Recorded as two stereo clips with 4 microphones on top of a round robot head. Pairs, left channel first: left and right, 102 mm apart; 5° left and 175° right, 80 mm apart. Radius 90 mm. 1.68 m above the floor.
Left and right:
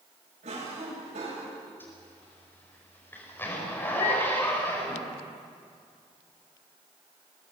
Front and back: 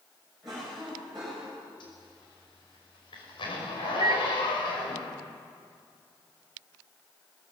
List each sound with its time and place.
0.4 s a cough: 85° right, 8 m
1.8 s a zipper: 20° left, 5.5 m
4.0 s a microwave: 145° left, 1.0 m